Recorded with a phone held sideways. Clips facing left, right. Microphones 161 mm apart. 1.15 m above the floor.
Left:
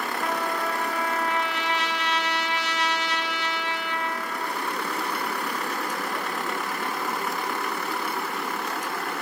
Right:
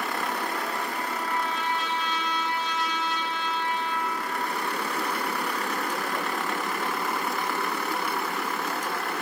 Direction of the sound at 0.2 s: 80° left.